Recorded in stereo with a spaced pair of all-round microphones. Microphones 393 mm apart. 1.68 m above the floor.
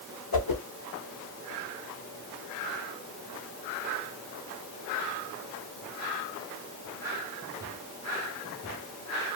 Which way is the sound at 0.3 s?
70° left (ahead or behind).